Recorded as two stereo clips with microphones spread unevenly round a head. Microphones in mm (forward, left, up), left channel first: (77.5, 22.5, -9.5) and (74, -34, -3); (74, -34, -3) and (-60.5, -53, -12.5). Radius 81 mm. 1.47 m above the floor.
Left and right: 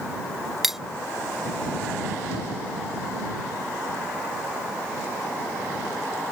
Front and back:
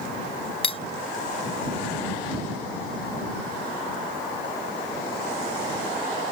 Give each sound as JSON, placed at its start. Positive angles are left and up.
{"t": 0.6, "sound": "cutlery clinking", "azimuth_deg": -15}